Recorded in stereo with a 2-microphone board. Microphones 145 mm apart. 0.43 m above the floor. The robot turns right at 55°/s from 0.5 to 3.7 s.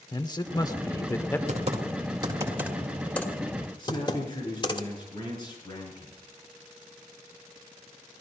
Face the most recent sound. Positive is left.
turn(degrees=30)  # may be behind; listen again after turning